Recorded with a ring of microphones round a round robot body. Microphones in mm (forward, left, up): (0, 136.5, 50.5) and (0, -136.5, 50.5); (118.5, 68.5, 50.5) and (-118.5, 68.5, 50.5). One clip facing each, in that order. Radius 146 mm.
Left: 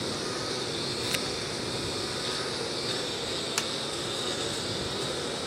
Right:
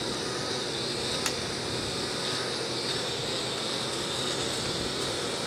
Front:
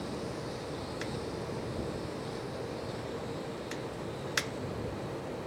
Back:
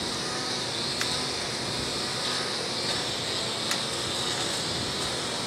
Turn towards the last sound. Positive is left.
turn(degrees=180)